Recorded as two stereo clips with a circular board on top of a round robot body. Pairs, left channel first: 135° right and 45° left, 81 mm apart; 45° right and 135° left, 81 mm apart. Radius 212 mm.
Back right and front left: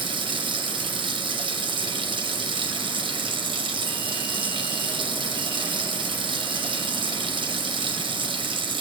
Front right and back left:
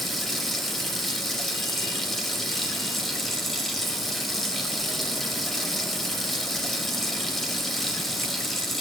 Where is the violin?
No violin in this recording.